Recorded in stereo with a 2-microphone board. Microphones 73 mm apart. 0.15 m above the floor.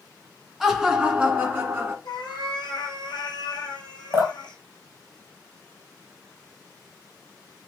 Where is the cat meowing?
75° left (ahead or behind), 1.9 m.